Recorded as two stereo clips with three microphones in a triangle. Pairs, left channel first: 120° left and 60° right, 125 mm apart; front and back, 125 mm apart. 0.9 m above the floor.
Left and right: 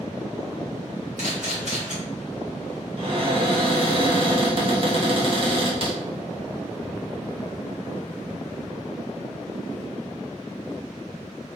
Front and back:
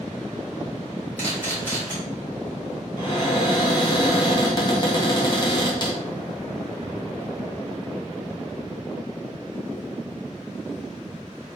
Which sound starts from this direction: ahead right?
A cupboard door, at 3.0 s.